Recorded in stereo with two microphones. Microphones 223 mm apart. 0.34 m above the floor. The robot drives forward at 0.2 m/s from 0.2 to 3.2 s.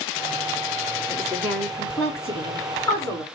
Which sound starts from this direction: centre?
A woman speaking, at 1.1 s.